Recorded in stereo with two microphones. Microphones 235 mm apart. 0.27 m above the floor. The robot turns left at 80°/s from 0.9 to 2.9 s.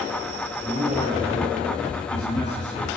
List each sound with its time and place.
0.6 s a man speaking: 175° left, 7.5 m; by 2.9 s 15° left, 7.5 m